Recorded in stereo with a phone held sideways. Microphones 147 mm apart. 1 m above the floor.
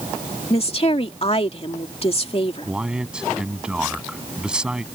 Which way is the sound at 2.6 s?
5° right (ahead or behind).